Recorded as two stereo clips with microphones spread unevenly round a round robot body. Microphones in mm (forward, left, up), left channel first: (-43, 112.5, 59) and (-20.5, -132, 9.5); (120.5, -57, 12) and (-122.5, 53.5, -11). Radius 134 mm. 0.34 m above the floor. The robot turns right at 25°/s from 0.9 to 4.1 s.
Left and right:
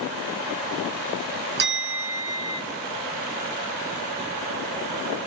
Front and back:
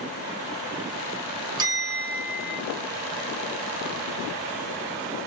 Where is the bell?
130° right, 1.3 m; by 2.6 s 105° right, 1.3 m.